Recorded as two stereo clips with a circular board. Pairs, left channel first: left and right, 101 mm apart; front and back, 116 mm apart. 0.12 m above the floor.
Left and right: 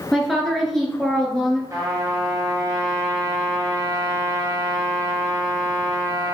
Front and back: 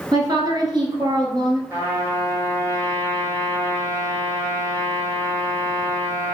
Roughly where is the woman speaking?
Behind.